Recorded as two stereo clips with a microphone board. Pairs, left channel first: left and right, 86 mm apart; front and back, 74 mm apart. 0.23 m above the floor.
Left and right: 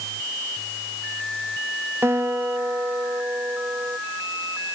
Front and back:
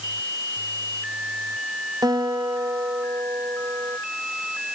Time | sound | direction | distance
2.0 | a guitar | 150° right | ?